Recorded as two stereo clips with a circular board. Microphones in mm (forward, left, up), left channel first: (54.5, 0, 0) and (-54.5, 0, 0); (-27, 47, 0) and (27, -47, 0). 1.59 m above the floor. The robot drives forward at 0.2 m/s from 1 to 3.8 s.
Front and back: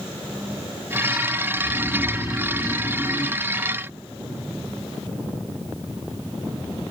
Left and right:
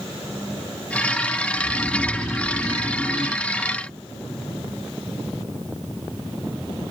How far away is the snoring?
About 1.4 m.